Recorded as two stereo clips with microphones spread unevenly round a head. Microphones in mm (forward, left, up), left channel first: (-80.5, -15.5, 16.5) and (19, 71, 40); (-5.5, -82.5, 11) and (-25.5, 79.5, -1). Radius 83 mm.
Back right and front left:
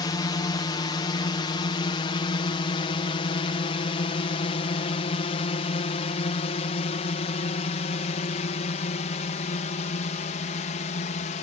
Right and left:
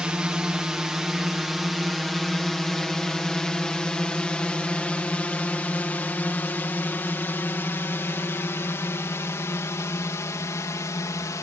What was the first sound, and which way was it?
A drone, straight behind.